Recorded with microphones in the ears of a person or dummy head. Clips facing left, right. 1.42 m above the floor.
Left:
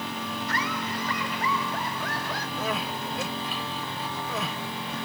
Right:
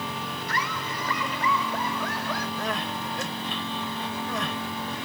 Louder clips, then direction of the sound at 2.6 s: Even; 10° left (ahead or behind).